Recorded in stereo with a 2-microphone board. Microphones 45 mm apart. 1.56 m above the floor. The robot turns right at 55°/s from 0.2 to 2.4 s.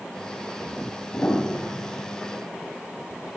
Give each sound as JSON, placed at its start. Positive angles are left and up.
{"t": 1.1, "sound": "a piano", "azimuth_deg": 35, "distance_m": 5.5}